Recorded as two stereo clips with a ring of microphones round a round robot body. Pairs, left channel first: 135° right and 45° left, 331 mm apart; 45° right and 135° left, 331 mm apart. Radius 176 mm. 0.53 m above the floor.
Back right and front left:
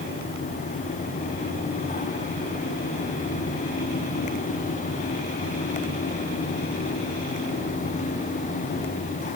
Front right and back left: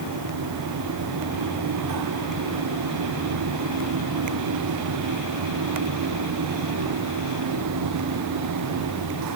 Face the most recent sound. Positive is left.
No sound to turn to.